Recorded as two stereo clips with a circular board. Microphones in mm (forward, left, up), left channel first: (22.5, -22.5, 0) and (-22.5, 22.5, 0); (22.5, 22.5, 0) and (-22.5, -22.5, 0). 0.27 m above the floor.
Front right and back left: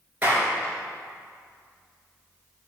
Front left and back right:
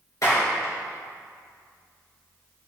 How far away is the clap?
About 3 m.